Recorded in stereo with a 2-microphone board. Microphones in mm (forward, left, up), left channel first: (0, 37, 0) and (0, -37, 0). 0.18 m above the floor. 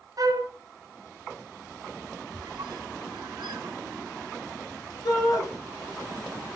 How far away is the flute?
About 0.9 m.